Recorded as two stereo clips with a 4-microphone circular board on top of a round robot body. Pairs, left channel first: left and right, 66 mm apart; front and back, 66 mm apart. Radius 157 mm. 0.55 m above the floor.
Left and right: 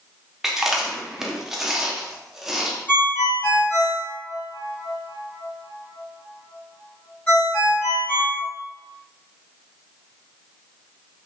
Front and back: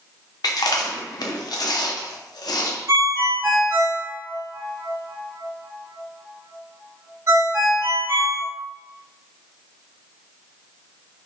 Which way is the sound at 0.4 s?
5° right.